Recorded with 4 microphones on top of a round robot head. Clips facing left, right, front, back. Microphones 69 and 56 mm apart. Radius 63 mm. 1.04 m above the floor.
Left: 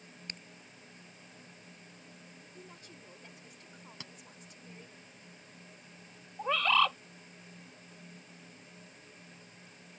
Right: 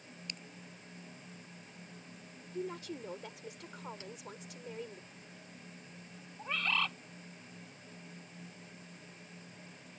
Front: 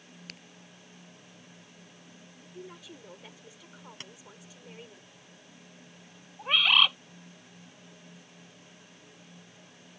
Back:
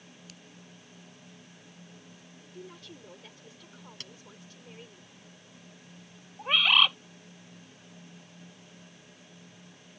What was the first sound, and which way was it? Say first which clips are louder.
A crack: left 2 dB, front 8 dB; 35° left.